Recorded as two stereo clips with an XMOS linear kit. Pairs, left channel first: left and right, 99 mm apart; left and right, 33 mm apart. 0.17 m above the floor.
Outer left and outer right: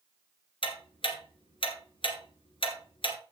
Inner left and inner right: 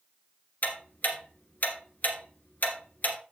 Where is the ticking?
65° left (ahead or behind), 1.8 m.